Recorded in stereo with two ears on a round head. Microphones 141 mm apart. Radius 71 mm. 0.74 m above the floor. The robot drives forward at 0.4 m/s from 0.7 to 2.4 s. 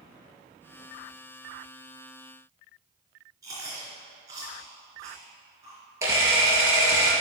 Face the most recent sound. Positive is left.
turn(degrees=-20)  # may be behind; listen again after turning